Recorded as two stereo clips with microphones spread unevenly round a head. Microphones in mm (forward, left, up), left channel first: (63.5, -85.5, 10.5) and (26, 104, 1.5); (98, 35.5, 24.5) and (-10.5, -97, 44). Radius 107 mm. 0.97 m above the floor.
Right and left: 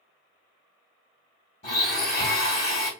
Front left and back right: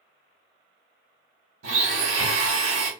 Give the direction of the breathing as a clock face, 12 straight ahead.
I don't hear breathing.